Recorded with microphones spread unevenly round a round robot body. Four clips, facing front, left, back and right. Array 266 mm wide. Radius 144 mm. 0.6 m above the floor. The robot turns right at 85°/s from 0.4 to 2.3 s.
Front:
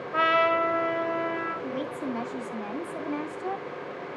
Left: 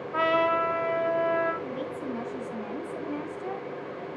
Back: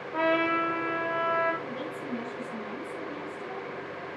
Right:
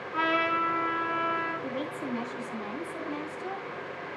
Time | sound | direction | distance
0.1 | a trumpet | 20° left | 1.3 m
1.6 | a woman speaking | 65° right | 2 m